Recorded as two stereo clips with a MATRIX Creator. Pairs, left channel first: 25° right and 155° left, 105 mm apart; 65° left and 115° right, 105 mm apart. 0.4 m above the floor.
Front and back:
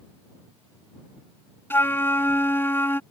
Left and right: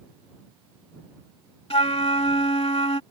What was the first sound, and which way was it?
A flute, 45° left.